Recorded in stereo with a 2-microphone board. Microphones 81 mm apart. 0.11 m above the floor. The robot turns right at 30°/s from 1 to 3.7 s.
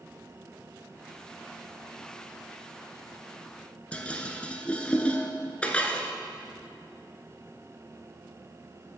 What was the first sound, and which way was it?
Dishes clattering, 15° left (ahead or behind).